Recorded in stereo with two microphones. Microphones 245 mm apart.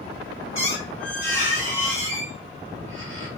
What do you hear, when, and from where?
0.6 s a squeak: 60° right (ahead or behind), 1.3 m